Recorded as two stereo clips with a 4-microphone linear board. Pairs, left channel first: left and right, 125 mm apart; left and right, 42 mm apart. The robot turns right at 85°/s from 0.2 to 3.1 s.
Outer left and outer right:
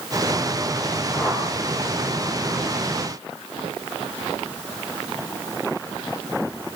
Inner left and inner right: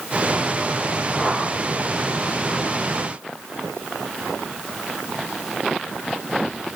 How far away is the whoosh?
About 4.5 m.